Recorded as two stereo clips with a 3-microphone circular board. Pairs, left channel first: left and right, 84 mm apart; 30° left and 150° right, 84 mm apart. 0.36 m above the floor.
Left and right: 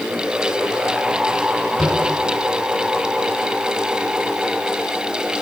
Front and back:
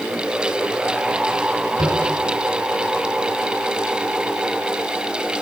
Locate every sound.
1.8 s tapping: 175° left, 2.5 m